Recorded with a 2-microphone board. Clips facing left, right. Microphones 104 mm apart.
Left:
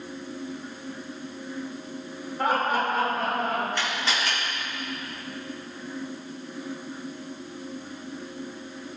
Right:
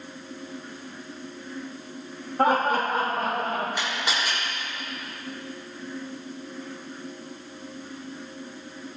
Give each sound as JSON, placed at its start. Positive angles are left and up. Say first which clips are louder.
{"t": 2.4, "sound": "laughter", "louder": "right 3 dB", "side_deg": -50, "distance_m": 2.5}
{"t": 3.8, "sound": "a camera shutter", "louder": "even", "side_deg": -15, "distance_m": 5.0}